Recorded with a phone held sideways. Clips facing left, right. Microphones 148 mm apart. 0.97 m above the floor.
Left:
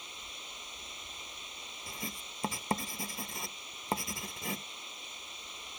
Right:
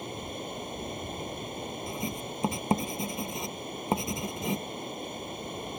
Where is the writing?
20° right (ahead or behind).